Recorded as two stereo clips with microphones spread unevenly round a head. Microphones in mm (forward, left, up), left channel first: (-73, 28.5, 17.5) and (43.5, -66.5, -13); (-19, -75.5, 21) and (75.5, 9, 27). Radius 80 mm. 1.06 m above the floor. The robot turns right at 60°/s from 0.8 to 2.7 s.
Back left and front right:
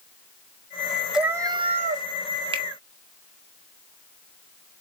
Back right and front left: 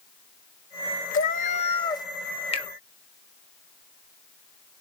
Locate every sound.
1.1 s a cat meowing: 130° right, 0.8 m; by 2.1 s 75° right, 0.8 m
2.5 s a finger snap: 95° right, 1.3 m; by 2.7 s 90° right, 1.3 m